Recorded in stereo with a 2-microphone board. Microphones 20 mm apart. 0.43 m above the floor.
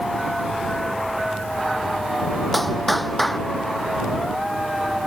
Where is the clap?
10° left (ahead or behind).